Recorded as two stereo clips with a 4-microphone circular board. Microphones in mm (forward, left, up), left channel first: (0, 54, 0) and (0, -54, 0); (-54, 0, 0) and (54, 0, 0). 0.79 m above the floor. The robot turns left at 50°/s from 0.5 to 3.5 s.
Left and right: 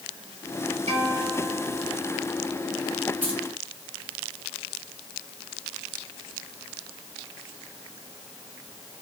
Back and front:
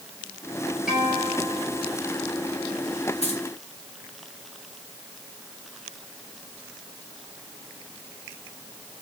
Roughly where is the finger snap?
I don't hear a finger snap.